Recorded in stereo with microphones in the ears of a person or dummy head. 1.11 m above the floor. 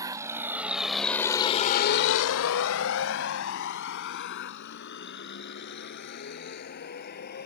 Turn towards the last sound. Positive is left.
turn(degrees=50)  # may be behind; listen again after turning